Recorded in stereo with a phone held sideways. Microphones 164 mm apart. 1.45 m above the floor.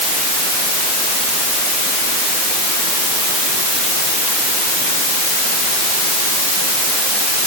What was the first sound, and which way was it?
Only background noise.